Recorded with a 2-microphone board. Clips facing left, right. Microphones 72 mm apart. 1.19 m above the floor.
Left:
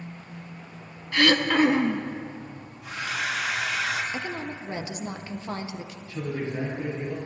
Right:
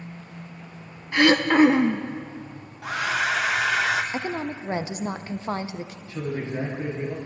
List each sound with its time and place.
1.1 s throat clearing: 20° right (ahead or behind), 0.6 m
2.8 s a hair dryer: 80° right, 0.8 m
4.1 s a woman speaking: 40° right (ahead or behind), 0.6 m
6.1 s a man speaking: 25° right (ahead or behind), 2 m